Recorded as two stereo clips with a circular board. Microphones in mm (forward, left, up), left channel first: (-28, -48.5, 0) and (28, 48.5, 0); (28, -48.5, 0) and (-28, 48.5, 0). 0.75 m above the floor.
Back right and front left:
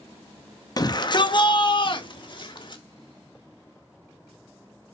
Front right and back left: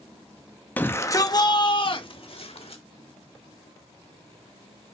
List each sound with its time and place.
0.8 s a shout: 125° right, 0.8 m; by 2.8 s 80° right, 1.8 m